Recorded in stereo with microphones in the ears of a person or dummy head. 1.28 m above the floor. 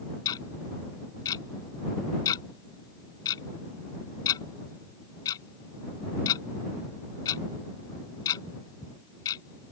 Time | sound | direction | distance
0.2 | ticking | 20° left (ahead or behind) | ?